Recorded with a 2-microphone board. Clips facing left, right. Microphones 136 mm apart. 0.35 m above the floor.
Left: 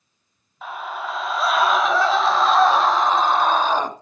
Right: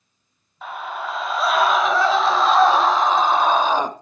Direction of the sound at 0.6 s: Centre (ahead or behind).